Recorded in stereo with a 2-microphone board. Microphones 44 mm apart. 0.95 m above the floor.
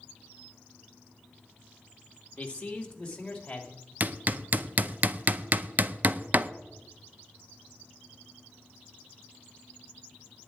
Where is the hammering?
40° right (ahead or behind), 0.7 m.